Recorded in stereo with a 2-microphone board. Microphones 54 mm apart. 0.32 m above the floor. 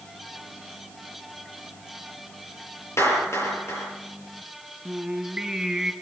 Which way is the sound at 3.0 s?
60° left (ahead or behind).